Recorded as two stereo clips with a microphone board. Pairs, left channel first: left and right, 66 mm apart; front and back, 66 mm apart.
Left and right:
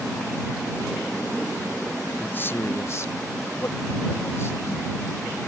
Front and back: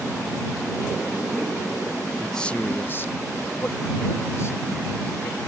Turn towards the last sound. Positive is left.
turn(degrees=45)